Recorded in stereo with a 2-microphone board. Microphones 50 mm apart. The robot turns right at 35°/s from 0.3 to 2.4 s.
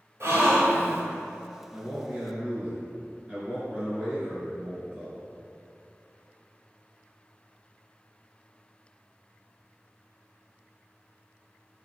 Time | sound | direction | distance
0.2 | a gasp | 65° right (ahead or behind) | 0.8 m
1.7 | a man speaking | 20° right (ahead or behind) | 1.8 m